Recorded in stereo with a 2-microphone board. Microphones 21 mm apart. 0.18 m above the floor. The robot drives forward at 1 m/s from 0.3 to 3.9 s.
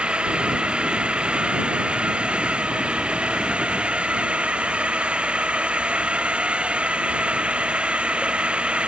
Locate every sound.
0.0 s a drone: 65° right (ahead or behind); by 8.9 s 70° right (ahead or behind)